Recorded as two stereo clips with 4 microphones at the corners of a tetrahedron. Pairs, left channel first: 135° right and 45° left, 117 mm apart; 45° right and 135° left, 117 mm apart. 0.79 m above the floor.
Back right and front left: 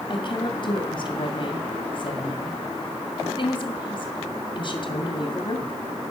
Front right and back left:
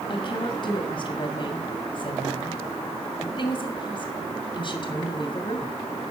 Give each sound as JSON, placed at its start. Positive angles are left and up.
{"t": 0.1, "sound": "a woman speaking", "azimuth_deg": -90, "distance_m": 2.5}